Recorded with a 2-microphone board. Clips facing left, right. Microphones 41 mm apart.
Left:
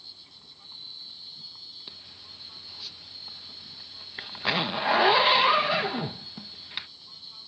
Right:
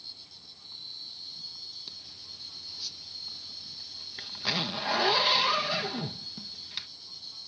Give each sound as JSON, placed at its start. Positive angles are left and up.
{"t": 0.0, "sound": "an insect", "side_deg": 20}
{"t": 1.9, "sound": "a zipper", "side_deg": 25}